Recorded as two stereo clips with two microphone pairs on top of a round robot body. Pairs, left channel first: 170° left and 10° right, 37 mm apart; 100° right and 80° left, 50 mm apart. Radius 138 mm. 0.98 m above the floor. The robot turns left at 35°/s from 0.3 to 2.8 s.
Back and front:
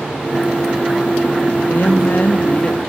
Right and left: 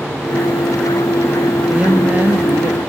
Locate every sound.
1.7 s a woman speaking: 155° left, 2 m; by 2.8 s 115° left, 2 m